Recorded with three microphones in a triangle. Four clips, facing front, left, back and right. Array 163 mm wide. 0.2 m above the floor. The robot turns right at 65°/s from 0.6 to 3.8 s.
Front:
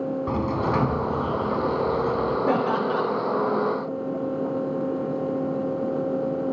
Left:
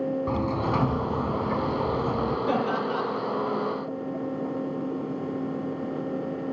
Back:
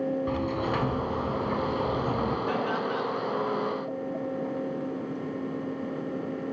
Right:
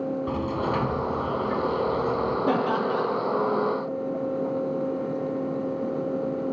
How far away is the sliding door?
About 1.4 m.